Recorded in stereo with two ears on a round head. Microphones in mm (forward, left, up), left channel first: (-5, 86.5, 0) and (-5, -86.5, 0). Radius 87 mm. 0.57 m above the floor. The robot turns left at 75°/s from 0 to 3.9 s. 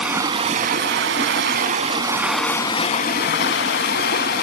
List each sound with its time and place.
0.0 s running water: 5° right, 0.7 m; by 4.5 s 65° left, 0.7 m